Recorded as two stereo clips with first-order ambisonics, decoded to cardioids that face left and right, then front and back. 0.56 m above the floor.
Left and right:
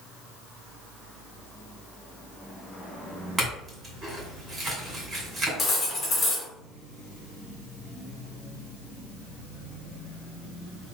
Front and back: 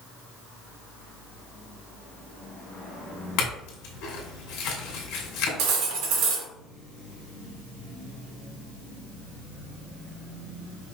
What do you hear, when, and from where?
3.4 s a clink: 20° right, 2 m
5.6 s cutlery clinking: 160° left, 1.3 m